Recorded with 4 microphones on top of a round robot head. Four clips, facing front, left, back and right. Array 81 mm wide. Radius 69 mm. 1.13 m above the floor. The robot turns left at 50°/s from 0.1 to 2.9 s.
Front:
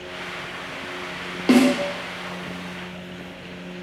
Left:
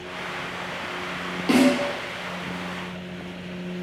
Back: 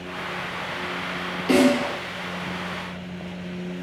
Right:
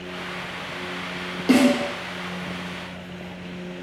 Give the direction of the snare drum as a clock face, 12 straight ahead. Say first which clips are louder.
Right 1 dB, front 2 dB; 1 o'clock.